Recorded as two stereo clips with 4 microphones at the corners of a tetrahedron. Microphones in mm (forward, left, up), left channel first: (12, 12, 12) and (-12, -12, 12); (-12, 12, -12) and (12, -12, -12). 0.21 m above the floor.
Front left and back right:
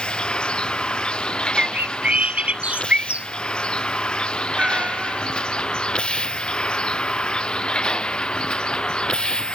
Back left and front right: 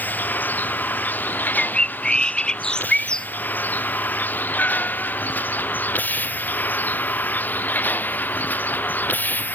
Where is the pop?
I don't hear a pop.